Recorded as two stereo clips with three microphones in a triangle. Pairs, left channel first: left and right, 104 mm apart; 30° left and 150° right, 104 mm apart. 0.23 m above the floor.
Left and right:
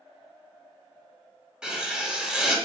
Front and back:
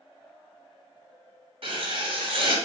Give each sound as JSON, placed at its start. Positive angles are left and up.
{"t": 1.6, "sound": "writing", "azimuth_deg": -170, "distance_m": 1.1}